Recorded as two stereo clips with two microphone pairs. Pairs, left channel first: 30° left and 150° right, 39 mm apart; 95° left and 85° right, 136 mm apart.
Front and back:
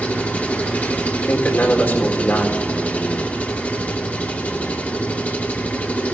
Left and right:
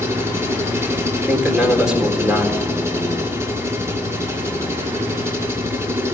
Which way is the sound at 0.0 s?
15° right.